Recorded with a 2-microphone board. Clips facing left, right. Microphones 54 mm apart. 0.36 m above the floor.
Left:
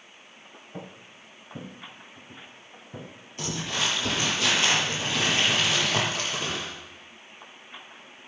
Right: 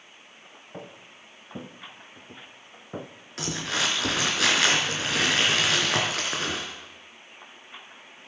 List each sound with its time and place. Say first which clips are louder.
0.7 s footsteps: even; 25° right (ahead or behind), 2 m; by 3.1 s 70° right (ahead or behind), 1.7 m
3.4 s crumpling: right 1 dB; 75° right (ahead or behind), 4 m